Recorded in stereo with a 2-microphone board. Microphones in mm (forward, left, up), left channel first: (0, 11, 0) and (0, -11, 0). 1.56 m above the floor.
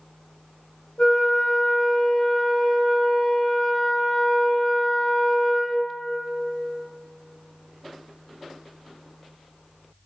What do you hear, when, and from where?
1.0 s a flute: 75° left (ahead or behind), 0.5 m